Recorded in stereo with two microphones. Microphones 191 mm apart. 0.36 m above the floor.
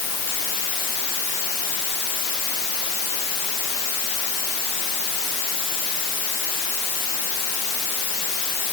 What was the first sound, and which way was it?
Only background noise.